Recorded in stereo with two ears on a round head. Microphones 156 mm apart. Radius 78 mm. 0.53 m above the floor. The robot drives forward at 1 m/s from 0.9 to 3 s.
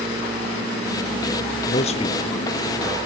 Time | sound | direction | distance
1.7 | a man speaking | 40° left (ahead or behind) | 0.8 m